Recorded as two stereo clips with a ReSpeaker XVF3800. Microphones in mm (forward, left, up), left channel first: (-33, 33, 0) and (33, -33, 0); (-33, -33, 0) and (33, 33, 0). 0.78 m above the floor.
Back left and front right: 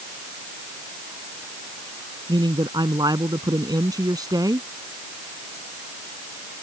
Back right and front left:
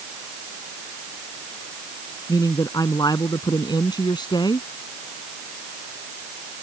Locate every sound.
2.3 s a man speaking: 85° right; by 4.7 s 95° right